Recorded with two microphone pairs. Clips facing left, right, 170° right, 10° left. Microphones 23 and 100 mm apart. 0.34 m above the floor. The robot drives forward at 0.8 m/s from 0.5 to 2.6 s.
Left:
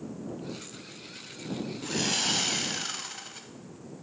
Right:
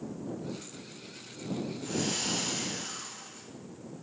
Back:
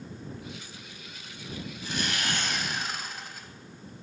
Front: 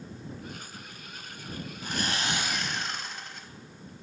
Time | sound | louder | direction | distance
1.8 | sawing | left 5 dB, front 1 dB | 50° left | 0.8 m